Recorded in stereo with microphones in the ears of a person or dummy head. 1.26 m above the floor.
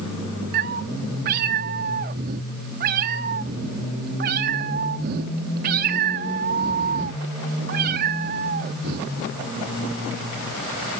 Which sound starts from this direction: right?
A cat meowing, at 0.5 s.